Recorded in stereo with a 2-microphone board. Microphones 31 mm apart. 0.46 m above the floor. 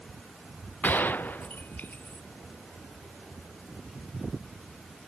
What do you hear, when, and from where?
0.8 s a gunshot: 85° left